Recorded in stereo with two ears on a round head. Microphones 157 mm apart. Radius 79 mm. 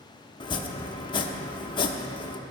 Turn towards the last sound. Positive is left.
turn(degrees=25)  # may be behind; listen again after turning